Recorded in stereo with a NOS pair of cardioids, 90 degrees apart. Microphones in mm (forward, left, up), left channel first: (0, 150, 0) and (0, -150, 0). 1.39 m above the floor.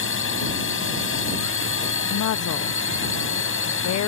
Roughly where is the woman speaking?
Ahead left.